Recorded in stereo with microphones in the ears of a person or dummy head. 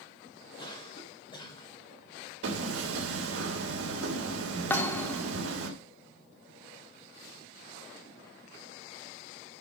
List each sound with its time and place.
0.6 s a cough: 25° left (ahead or behind), 4 m
2.4 s hammering: 80° right, 3 m
4.7 s a thud: 10° left (ahead or behind), 1.0 m